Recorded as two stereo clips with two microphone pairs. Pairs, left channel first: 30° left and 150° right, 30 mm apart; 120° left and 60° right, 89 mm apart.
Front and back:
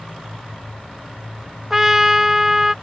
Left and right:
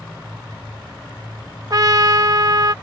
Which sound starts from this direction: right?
A trumpet, at 1.7 s.